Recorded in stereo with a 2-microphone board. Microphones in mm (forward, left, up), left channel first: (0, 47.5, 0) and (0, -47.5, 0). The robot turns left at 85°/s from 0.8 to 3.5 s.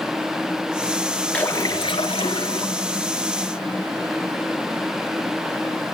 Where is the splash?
165° left, 3 m; by 2.9 s 35° left, 3 m.